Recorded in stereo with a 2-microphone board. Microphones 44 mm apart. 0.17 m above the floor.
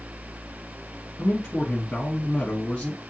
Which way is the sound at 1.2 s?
20° left (ahead or behind).